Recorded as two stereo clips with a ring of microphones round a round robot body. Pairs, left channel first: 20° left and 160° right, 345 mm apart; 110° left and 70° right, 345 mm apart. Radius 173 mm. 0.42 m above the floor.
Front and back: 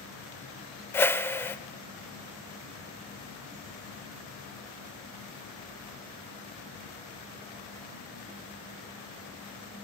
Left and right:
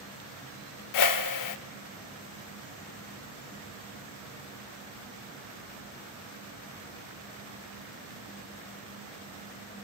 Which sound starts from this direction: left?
A whoosh, at 0.9 s.